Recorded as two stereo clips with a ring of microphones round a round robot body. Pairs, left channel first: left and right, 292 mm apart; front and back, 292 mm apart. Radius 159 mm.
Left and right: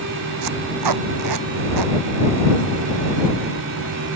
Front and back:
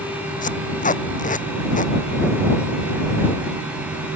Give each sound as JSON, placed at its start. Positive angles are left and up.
{"t": 0.4, "sound": "tape being pulled", "azimuth_deg": -60}